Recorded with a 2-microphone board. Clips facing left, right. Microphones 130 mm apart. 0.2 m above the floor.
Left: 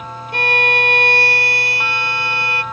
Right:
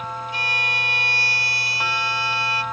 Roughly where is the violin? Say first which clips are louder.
Left 10 dB; left.